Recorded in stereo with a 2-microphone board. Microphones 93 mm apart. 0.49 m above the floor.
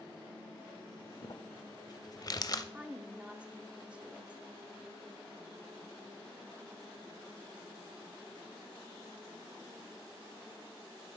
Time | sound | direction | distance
1.2 | crumpling | 40° left (ahead or behind) | 0.6 m
2.7 | a woman speaking | 10° right (ahead or behind) | 0.7 m